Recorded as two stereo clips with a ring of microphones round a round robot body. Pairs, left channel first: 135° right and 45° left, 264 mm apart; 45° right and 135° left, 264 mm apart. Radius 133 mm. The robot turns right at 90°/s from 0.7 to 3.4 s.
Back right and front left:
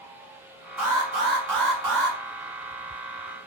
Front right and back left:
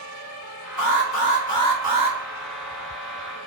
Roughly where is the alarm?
Ahead right.